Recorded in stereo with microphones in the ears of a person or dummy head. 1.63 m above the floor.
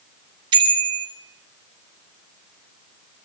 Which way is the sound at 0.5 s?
30° right (ahead or behind).